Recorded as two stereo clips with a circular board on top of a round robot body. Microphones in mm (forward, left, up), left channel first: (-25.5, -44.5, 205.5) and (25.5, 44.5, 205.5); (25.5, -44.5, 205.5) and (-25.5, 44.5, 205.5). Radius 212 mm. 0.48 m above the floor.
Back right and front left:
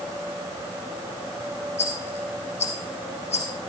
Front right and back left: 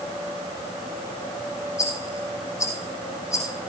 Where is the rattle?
120° right, 4.5 m.